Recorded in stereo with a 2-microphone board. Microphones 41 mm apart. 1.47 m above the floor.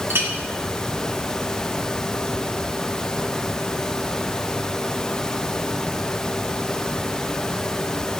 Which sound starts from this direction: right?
A clink, at 0.1 s.